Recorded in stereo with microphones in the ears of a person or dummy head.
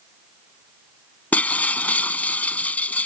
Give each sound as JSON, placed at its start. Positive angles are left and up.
{"t": 1.3, "sound": "breaking glass", "side_deg": 20}